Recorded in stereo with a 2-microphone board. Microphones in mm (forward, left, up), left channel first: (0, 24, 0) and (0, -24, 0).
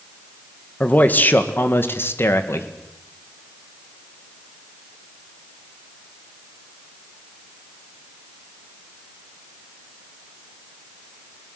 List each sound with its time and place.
0.8 s a man speaking: 30° left (ahead or behind), 1.9 m; by 2.7 s 65° left (ahead or behind), 2 m